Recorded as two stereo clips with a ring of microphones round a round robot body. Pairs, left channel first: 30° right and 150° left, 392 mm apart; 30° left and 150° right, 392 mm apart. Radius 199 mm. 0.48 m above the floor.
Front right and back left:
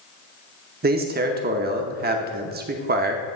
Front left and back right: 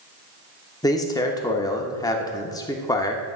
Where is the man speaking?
105° left, 0.8 m.